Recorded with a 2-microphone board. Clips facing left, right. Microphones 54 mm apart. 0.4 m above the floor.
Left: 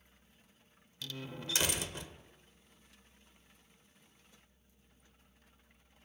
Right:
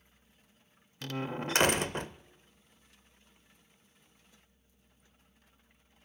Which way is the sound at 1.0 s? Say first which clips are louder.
Right 8 dB; 50° right (ahead or behind).